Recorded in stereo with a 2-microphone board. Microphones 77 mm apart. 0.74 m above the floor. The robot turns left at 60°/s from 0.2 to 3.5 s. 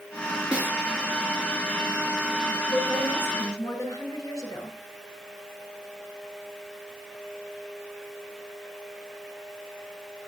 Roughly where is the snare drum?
Centre.